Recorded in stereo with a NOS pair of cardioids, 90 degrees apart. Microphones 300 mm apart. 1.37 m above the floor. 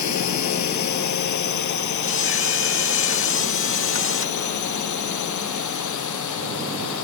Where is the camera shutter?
45° left.